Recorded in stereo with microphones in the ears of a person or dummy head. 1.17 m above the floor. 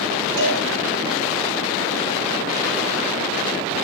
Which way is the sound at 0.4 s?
60° right (ahead or behind).